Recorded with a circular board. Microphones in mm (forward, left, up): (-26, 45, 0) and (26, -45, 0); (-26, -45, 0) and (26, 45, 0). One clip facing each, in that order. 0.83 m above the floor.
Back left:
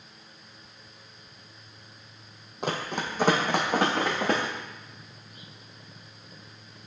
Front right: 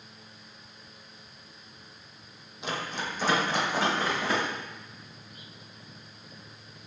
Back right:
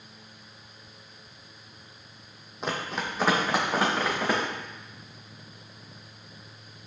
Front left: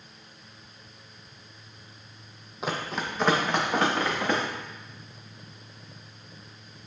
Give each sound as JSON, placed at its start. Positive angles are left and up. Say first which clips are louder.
{"t": 2.6, "sound": "running footsteps", "louder": "back left 3 dB, even", "azimuth_deg": 145, "distance_m": 1.3}